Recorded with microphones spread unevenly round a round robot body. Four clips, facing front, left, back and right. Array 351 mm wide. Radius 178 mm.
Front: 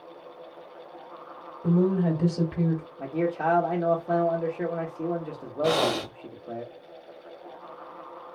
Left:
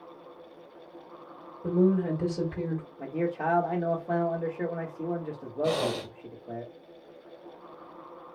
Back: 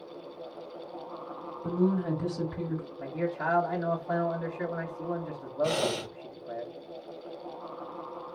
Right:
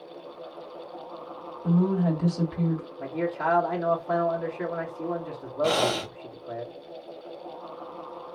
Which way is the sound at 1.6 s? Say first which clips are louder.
Even, front 4 dB; 15° left.